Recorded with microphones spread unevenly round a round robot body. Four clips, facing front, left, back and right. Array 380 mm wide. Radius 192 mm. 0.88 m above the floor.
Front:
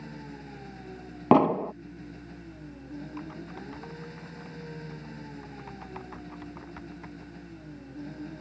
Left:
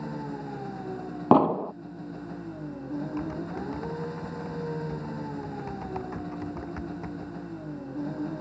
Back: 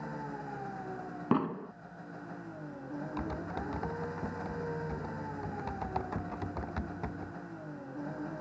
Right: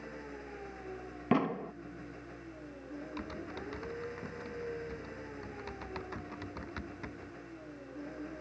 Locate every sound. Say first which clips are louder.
0.0 s an engine running: left 10 dB, back 3 dB; 90° left
1.3 s an explosion: left 11 dB, front 11 dB; 45° left
3.2 s typing on a keyboard: left 9 dB, back 3 dB; 165° left